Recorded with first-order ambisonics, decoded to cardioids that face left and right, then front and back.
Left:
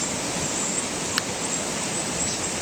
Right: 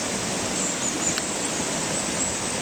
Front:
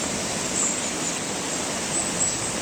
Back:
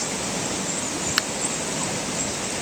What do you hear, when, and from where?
1.2 s a finger snap: 160° left